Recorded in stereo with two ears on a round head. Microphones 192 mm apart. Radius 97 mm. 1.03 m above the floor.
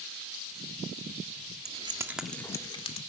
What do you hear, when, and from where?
1.6 s keys jangling: 35° right (ahead or behind), 1.3 m; by 3.0 s 30° left (ahead or behind), 1.9 m